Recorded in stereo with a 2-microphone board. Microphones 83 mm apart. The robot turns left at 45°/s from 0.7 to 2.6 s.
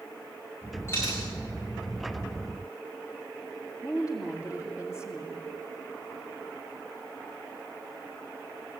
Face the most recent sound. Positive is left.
turn(degrees=-15)  # may be behind; listen again after turning